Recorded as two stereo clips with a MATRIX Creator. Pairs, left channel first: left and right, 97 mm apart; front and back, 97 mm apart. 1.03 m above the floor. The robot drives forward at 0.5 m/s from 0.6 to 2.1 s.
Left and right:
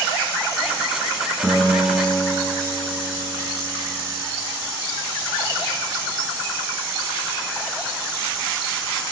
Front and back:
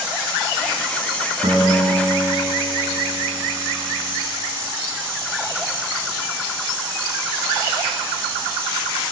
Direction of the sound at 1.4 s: Straight behind.